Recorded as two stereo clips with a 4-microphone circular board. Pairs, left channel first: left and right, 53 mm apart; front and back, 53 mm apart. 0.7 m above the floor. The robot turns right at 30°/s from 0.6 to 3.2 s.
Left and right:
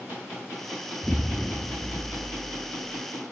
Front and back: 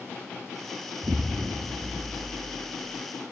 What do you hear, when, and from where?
1.0 s an explosion: 170° left, 0.6 m; by 3.0 s 130° right, 0.6 m